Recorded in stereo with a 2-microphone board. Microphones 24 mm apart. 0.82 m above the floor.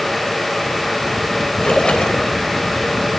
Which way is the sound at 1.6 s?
45° left (ahead or behind).